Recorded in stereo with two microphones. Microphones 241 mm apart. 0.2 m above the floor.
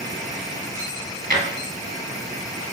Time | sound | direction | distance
1.3 | a drawer | 35° right (ahead or behind) | 1.1 m